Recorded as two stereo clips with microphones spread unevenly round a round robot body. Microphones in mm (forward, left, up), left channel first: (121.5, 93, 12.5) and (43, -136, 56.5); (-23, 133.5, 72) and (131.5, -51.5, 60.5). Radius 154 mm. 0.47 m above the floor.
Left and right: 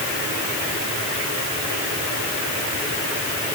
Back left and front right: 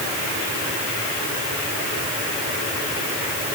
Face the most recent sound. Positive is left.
No sound to turn to.